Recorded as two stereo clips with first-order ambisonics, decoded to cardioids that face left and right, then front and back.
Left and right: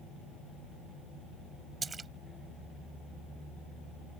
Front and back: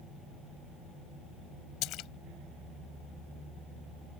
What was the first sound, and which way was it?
A splash, 20° right.